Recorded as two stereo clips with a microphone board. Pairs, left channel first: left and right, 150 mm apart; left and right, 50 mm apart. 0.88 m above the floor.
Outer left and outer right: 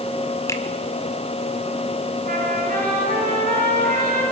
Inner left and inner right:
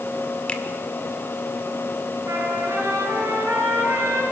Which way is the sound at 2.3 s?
65° right (ahead or behind).